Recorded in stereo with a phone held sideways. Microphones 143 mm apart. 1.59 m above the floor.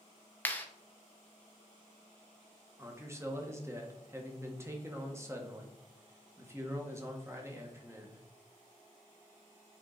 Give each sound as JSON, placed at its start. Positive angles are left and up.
{"t": 0.5, "sound": "a clap", "side_deg": 15, "distance_m": 0.9}
{"t": 2.8, "sound": "a man speaking", "side_deg": -20, "distance_m": 1.5}